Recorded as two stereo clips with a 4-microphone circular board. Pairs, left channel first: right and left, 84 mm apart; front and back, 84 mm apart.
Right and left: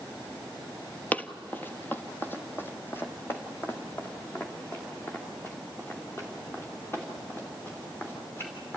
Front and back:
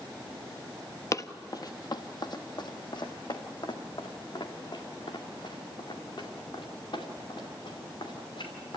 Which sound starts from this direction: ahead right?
Running footsteps, at 1.1 s.